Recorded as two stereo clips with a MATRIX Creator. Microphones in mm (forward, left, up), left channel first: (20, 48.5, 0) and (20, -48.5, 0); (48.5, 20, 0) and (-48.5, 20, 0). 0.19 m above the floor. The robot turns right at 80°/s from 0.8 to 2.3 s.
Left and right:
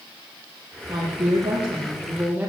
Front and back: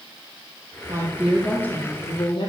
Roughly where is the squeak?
No squeak in this recording.